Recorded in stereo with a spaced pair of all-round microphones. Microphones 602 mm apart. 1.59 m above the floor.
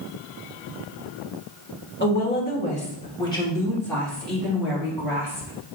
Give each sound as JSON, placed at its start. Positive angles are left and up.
{"t": 2.0, "sound": "a woman speaking", "side_deg": 20, "distance_m": 2.0}